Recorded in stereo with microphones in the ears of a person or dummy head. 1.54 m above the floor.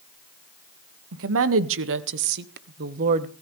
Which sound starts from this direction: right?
A woman speaking, at 1.1 s.